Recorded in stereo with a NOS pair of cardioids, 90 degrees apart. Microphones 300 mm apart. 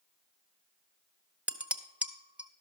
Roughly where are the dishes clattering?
Ahead.